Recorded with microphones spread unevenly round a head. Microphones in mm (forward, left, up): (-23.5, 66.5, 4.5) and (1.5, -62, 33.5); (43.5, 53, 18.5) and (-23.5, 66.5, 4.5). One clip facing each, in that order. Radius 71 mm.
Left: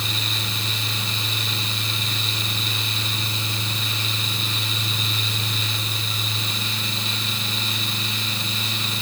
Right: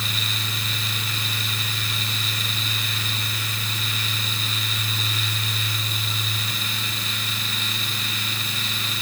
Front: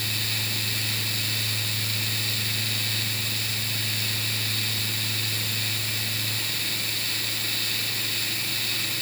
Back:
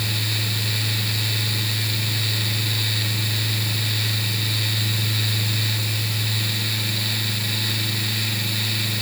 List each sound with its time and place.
Only background noise.